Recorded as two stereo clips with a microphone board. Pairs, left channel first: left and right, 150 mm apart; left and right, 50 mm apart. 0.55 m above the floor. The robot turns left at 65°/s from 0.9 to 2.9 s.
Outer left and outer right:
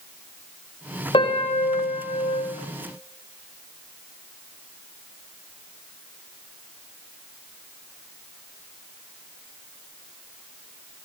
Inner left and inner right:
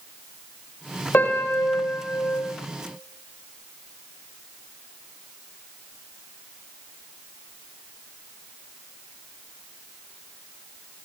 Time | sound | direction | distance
1.1 | a piano | 140° left | 2 m